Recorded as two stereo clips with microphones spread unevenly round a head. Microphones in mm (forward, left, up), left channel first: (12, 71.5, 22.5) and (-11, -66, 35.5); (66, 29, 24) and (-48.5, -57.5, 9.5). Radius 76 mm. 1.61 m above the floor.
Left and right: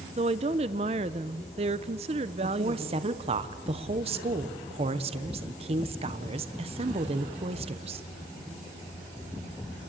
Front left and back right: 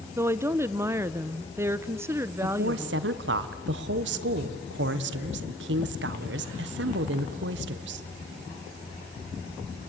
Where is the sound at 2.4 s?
150° right, 1.2 m.